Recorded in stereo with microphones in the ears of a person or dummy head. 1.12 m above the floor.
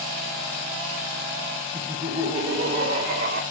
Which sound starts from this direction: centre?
Laughter, at 1.7 s.